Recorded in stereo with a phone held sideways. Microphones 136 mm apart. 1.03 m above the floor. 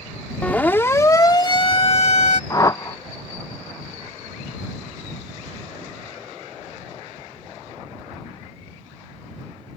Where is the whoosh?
25° left (ahead or behind).